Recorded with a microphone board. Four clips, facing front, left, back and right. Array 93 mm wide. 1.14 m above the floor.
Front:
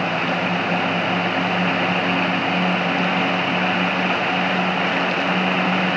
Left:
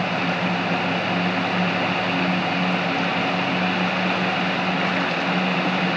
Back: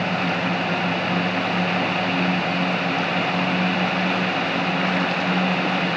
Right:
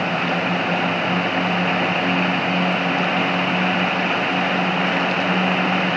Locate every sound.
Only background noise.